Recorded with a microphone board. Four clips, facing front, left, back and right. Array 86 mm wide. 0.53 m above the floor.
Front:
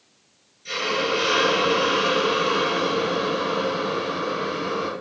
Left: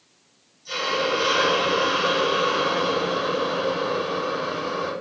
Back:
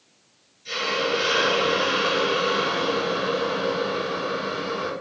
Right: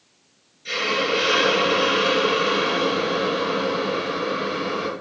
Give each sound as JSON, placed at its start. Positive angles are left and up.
{"t": 0.7, "sound": "a hiss", "azimuth_deg": -75, "distance_m": 2.5}